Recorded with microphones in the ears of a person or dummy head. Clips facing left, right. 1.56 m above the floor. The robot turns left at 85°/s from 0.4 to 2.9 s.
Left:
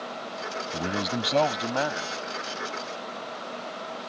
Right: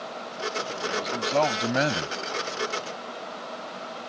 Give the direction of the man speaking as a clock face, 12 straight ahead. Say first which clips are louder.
Left 1 dB; 10 o'clock.